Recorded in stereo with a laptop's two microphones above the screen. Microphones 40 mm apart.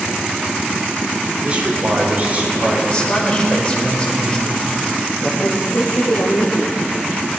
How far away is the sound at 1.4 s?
About 3.5 m.